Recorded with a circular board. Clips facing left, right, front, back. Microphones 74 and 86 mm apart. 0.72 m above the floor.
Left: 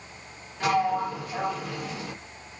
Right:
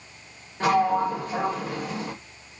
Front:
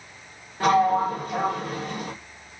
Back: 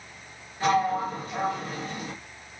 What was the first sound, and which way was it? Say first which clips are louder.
A sliding door: right 3 dB, front 4 dB; 30° right.